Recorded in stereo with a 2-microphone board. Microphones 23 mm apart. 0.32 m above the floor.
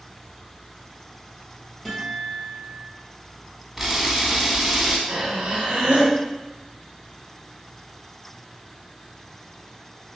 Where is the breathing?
60° right (ahead or behind), 0.8 m.